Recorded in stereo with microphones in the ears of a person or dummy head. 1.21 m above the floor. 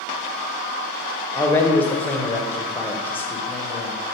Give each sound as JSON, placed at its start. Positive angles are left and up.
{"t": 1.4, "sound": "a man speaking", "side_deg": 10, "distance_m": 0.5}